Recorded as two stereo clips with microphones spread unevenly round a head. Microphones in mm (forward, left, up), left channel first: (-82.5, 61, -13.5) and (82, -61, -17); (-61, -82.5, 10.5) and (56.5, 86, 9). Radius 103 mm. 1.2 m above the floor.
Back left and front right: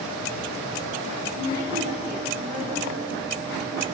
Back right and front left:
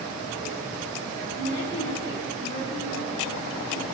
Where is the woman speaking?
85° right, 3.5 m.